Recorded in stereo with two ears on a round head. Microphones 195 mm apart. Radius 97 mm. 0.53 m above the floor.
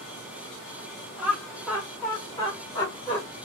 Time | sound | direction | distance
1.2 | laughter | 5° right (ahead or behind) | 1.0 m